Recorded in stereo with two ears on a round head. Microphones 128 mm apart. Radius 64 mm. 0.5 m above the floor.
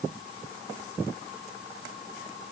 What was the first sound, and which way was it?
Only background noise.